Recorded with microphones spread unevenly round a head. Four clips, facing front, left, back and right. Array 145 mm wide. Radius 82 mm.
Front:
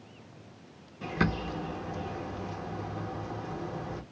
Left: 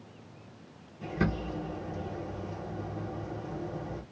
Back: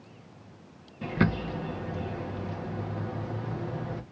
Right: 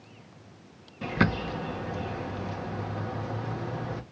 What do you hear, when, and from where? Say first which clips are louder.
1.0 s a bird: right 4 dB, back 3 dB; 60° right, 0.7 m